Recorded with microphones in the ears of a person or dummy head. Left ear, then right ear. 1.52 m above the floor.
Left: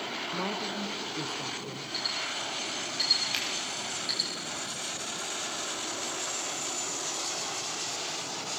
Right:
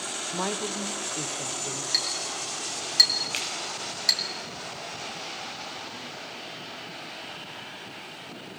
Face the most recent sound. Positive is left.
turn(degrees=5)  # may be behind; listen again after turning